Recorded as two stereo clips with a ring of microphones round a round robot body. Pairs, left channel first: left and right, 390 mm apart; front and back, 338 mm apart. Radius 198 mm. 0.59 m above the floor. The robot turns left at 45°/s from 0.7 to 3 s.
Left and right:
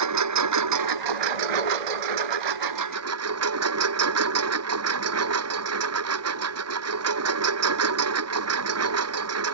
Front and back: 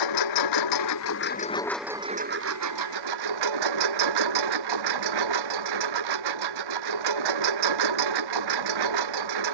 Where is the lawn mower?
40° right; by 9.5 s 145° right.